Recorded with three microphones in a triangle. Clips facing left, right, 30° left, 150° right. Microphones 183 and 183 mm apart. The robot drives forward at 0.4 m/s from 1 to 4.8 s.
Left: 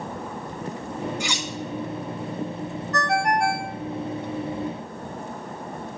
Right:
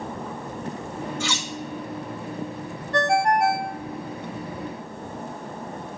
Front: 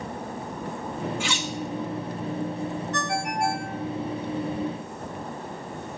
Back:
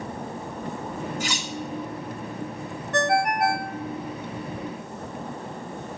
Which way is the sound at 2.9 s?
150° right.